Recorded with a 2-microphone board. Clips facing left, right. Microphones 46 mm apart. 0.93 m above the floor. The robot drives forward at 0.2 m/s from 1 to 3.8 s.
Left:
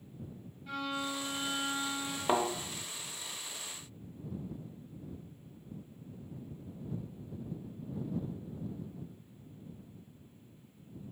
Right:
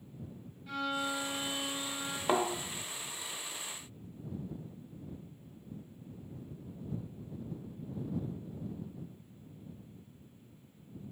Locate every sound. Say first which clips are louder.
0.7 s a violin: right 2 dB; centre (ahead or behind), 1.0 m
2.3 s a thud: even; centre (ahead or behind), 0.6 m